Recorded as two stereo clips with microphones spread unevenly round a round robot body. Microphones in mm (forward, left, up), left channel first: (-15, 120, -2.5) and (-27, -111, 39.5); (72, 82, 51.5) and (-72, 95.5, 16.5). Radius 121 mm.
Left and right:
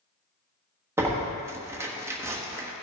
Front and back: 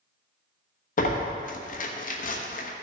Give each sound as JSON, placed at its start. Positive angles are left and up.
{"t": 1.0, "sound": "tearing paper", "azimuth_deg": -5, "distance_m": 1.0}